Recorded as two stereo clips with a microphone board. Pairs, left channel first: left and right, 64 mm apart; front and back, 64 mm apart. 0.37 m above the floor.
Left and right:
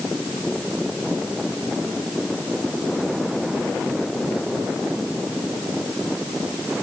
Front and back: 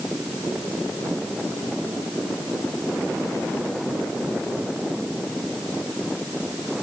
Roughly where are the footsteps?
No footsteps in this recording.